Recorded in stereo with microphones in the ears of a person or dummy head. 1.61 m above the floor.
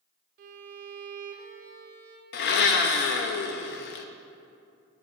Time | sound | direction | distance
0.4 | a violin | 50° right (ahead or behind) | 0.7 m
2.3 | a blender | 50° left (ahead or behind) | 0.6 m